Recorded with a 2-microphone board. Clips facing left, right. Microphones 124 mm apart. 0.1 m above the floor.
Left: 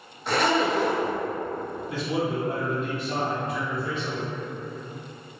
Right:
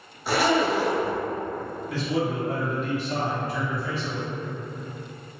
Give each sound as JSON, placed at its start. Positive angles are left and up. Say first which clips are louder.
{"t": 0.3, "sound": "a zipper", "louder": "right 1 dB", "side_deg": -5, "distance_m": 0.6}
{"t": 1.9, "sound": "a man speaking", "louder": "right 1 dB", "side_deg": 20, "distance_m": 2.0}